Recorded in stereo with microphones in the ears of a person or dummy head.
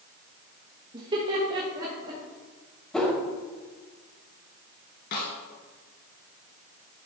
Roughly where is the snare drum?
Left.